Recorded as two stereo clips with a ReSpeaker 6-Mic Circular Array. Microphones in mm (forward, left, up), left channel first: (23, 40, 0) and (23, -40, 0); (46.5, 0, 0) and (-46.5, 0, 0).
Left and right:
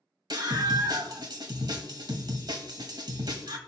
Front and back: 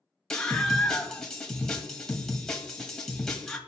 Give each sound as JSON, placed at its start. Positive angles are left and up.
{"t": 0.3, "sound": "a scream", "azimuth_deg": -85, "distance_m": 1.8}